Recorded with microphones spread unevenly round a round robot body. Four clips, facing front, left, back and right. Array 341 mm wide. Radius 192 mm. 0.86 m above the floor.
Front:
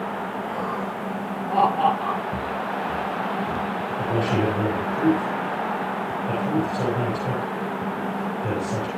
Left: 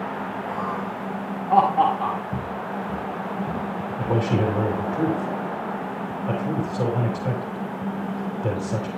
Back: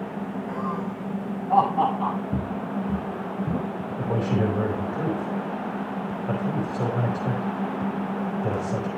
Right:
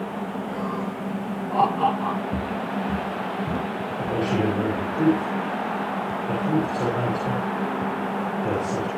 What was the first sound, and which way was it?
Laughter, 105° left.